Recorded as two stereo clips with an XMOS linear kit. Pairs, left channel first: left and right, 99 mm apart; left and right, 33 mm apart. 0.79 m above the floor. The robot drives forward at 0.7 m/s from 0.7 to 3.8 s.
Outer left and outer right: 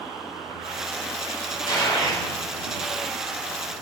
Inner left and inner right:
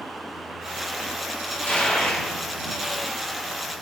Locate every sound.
1.7 s a gunshot: 50° left (ahead or behind), 3.5 m; by 2.2 s 55° left (ahead or behind), 3 m